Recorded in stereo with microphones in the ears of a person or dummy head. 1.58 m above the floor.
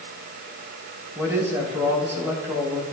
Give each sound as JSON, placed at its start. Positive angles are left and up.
{"t": 1.1, "sound": "a man speaking", "side_deg": -15, "distance_m": 5.0}